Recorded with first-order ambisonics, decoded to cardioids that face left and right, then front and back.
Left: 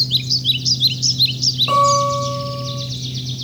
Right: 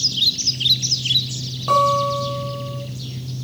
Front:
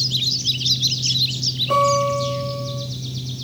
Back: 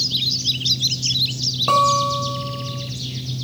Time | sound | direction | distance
1.7 | a guitar | 175° right | 6.5 m